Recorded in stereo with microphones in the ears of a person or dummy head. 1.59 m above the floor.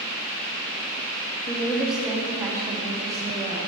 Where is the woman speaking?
15° left (ahead or behind), 0.6 m; by 3.7 s 20° right (ahead or behind), 2 m.